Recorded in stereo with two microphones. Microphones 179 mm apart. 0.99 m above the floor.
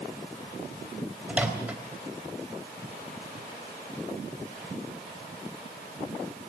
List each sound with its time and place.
1.3 s a microwave: 10° right (ahead or behind), 3 m